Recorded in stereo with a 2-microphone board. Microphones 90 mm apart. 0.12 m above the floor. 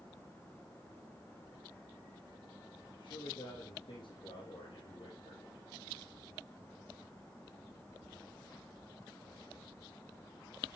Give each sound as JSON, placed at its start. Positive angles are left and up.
{"t": 2.9, "sound": "a man speaking", "side_deg": 65, "distance_m": 3.5}